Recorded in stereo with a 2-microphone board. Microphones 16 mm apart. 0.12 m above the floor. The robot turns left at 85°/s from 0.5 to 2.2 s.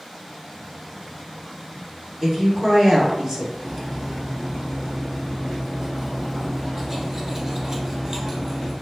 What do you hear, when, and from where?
2.2 s a woman speaking: 40° right (ahead or behind), 1.7 m
3.6 s cutlery clinking: 30° right (ahead or behind), 1.1 m